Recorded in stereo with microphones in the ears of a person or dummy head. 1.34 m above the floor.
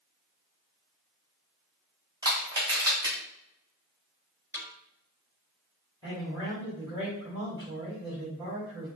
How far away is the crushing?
About 2.5 m.